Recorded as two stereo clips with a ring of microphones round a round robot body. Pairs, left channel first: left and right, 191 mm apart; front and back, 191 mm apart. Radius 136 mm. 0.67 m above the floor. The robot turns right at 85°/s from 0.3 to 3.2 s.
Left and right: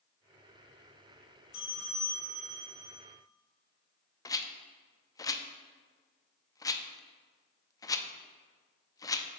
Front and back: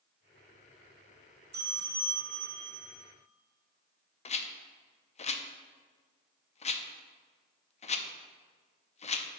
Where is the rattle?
30° left, 0.6 m.